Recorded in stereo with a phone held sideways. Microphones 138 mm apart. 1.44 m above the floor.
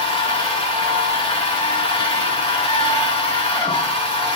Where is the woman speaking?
I don't hear a woman speaking.